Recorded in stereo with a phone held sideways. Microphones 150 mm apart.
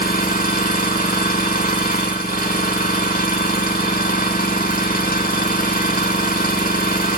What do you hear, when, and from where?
0.0 s an engine running: 75° left (ahead or behind), 0.7 m